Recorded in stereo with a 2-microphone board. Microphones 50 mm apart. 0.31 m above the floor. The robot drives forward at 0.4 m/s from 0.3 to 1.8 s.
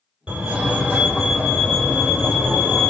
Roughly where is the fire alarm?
Centre.